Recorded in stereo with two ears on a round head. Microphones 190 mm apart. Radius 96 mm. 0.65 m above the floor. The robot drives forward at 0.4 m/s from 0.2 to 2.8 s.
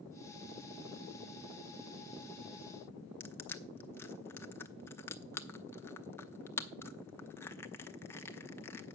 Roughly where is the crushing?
Centre.